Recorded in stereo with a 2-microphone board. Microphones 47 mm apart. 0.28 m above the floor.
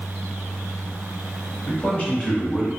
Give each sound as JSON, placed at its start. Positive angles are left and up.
{"t": 1.7, "sound": "a man speaking", "side_deg": 40, "distance_m": 1.3}